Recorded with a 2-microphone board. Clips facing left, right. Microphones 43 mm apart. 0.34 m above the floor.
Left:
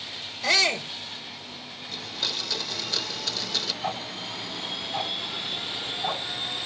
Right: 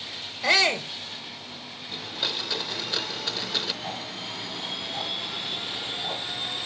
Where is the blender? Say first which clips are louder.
Right 1 dB; 20° right (ahead or behind), 0.7 m.